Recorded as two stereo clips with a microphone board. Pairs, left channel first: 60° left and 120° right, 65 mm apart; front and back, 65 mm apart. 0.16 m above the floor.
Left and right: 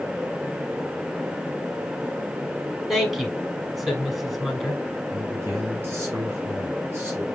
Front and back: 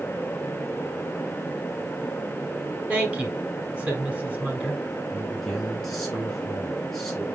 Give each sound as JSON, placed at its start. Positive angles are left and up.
{"t": 2.9, "sound": "a woman speaking", "azimuth_deg": 150, "distance_m": 1.1}
{"t": 5.1, "sound": "a man speaking", "azimuth_deg": -85, "distance_m": 2.0}